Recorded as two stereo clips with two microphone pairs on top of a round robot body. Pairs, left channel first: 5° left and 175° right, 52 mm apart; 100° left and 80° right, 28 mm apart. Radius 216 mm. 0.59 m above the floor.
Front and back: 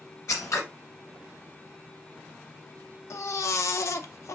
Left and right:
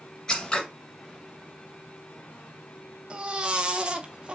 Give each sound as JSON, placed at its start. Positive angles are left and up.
{"t": 0.3, "sound": "scissors", "azimuth_deg": 30, "distance_m": 0.5}
{"t": 3.1, "sound": "a baby crying", "azimuth_deg": -25, "distance_m": 0.5}